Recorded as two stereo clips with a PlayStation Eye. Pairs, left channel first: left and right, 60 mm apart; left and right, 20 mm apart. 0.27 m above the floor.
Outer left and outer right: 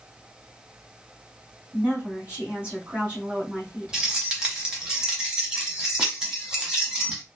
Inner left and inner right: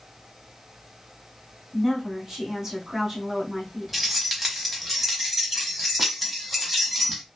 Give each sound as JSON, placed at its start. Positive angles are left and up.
{"t": 1.7, "sound": "a woman speaking", "side_deg": -20, "distance_m": 1.8}
{"t": 3.9, "sound": "keys jangling", "side_deg": -10, "distance_m": 1.2}